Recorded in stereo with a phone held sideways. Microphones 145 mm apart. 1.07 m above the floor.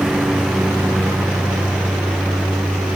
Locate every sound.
0.0 s a lawn mower: 5° right (ahead or behind)